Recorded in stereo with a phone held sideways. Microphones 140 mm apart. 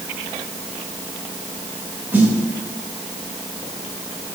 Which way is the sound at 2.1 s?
15° right (ahead or behind).